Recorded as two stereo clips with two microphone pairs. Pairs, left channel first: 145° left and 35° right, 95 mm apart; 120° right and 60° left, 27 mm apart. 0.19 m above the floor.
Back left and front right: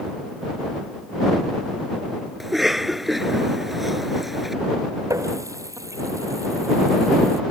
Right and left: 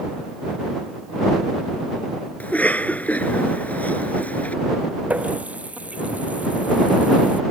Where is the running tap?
25° left.